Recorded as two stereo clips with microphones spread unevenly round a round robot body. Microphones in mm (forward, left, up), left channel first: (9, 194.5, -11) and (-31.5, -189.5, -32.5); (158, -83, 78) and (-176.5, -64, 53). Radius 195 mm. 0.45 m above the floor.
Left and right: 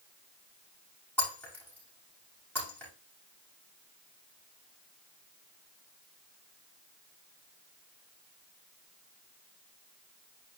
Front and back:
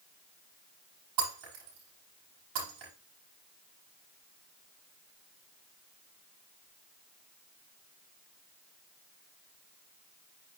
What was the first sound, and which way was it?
Breaking glass, 170° left.